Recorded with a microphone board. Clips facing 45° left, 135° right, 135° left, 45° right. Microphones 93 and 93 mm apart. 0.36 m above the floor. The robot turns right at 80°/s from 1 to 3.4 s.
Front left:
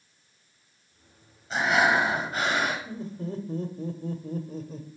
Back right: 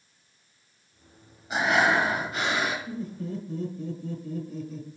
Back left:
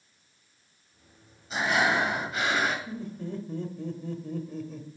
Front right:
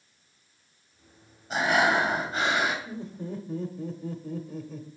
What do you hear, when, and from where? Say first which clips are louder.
1.5 s breathing: even, front right 2 dB; 60° right, 2 m; by 2.8 s 40° left, 2 m
2.9 s laughter: back right 1 dB, even; 5° right, 1.1 m; by 4.9 s 40° left, 1.1 m